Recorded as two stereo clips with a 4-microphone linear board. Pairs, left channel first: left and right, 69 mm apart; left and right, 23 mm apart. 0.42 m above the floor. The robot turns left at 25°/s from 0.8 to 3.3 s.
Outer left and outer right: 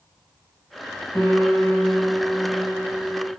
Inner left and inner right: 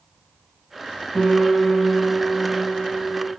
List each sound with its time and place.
1.1 s a piano: 80° left, 1.6 m; by 3.3 s 25° left, 1.6 m